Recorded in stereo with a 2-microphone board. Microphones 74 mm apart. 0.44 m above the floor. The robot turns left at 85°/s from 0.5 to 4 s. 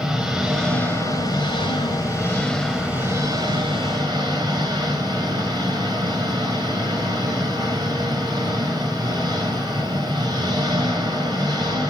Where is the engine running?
175° right, 4.5 m; by 11.9 s 110° right, 4.5 m.